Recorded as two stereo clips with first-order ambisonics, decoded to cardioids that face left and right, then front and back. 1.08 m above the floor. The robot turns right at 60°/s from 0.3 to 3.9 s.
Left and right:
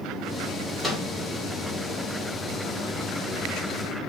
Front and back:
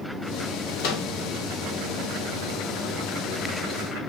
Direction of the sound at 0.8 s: 15° right.